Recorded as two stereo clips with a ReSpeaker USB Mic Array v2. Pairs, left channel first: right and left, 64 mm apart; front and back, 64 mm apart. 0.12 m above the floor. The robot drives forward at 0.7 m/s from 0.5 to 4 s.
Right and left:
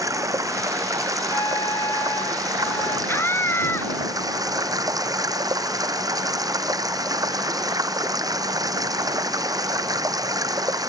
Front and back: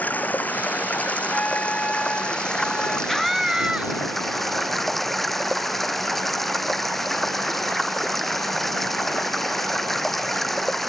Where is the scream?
85° right; by 4.0 s 115° right.